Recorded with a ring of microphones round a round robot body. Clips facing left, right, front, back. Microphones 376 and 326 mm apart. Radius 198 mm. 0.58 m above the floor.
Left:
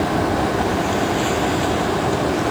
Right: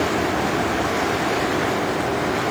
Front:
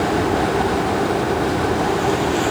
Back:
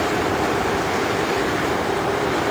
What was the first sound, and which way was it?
Only background noise.